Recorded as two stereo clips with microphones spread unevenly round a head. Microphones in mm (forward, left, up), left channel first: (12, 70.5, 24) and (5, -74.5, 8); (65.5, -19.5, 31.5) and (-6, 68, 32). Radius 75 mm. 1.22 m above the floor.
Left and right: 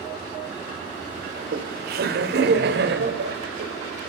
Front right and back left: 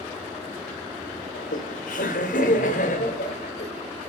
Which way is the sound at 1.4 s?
60° right.